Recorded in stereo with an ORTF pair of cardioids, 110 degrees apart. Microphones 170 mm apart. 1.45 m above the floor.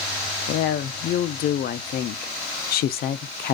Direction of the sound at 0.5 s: 65° left.